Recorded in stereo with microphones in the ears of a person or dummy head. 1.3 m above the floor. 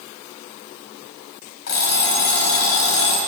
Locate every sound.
1.7 s an alarm clock: 75° left (ahead or behind), 3.5 m